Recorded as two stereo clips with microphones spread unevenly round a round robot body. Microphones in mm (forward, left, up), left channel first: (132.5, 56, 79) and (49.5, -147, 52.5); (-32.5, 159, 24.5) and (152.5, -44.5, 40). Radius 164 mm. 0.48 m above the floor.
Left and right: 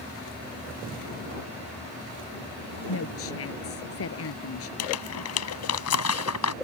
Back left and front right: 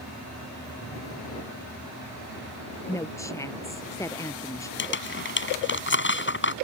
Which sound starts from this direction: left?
Crumpling, at 4.8 s.